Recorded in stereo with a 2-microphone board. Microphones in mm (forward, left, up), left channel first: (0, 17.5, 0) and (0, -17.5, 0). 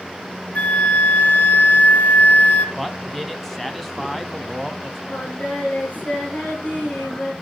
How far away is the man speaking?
About 1.1 m.